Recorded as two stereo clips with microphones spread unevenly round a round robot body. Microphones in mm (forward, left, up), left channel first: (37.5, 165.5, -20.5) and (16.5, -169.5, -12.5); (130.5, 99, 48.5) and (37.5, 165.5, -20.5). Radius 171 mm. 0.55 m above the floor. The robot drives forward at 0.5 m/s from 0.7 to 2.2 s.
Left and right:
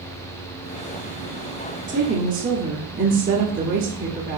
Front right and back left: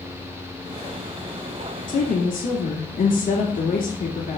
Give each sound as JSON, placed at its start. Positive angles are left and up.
{"t": 1.9, "sound": "a woman speaking", "azimuth_deg": -30, "distance_m": 1.3}